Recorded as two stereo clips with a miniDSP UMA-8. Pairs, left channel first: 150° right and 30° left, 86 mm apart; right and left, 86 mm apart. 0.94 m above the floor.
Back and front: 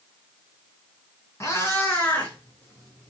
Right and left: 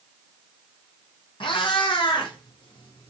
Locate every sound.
1.4 s a cat meowing: 90° right, 3 m; by 3.1 s 70° right, 4.5 m